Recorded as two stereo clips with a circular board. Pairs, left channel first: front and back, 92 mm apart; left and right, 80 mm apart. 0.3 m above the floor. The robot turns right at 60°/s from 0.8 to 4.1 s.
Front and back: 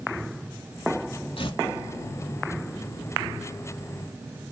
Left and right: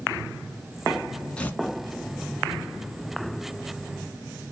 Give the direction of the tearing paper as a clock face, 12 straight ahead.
12 o'clock.